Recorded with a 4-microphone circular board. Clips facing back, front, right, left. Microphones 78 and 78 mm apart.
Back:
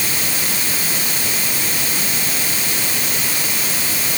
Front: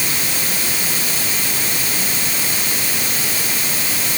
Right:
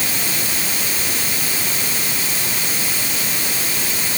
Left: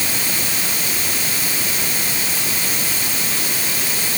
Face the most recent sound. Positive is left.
No sound to turn to.